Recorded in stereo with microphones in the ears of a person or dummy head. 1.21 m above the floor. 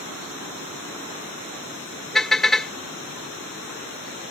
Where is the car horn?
5° left (ahead or behind).